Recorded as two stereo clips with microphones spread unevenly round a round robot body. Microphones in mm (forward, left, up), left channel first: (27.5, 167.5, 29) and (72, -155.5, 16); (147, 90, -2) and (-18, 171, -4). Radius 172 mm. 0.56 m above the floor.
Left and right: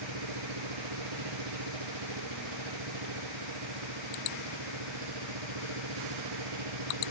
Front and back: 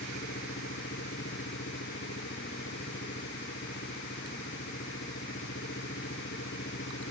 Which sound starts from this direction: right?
An engine running, at 0.0 s.